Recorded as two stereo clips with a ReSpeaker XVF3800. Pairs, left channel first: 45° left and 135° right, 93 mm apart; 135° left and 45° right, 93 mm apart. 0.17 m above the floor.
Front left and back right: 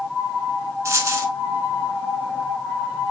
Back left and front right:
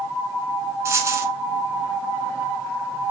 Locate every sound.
0.8 s a dropped coin: 90° right, 0.8 m